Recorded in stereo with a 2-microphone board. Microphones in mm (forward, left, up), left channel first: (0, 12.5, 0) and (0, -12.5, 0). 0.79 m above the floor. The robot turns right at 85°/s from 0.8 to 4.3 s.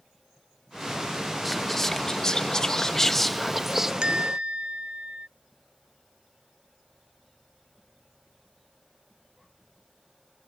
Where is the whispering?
5° left (ahead or behind); by 3.9 s 15° right (ahead or behind).